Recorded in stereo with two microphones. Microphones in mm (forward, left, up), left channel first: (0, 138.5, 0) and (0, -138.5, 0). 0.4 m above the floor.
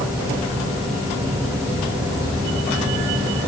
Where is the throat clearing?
I don't hear throat clearing.